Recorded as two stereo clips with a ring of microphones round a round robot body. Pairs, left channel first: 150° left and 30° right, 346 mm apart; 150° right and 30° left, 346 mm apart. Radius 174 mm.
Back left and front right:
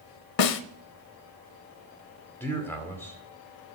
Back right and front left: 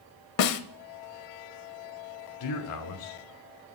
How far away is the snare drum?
About 0.8 m.